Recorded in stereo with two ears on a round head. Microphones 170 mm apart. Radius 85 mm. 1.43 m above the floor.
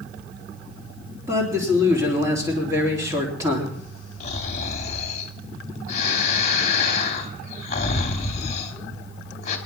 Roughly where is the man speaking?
Centre.